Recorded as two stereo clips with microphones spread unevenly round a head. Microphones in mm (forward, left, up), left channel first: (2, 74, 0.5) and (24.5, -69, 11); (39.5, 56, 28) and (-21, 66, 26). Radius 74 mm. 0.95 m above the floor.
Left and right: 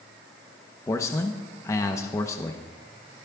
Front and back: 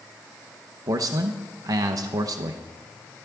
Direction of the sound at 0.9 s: 170° left.